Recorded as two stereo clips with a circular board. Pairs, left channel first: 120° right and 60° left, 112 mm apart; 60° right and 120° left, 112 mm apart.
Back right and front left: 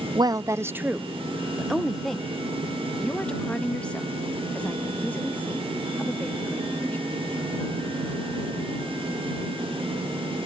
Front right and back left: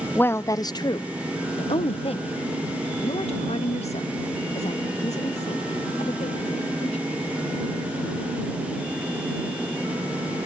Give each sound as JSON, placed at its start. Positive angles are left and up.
{"t": 0.1, "sound": "a woman speaking", "azimuth_deg": 15}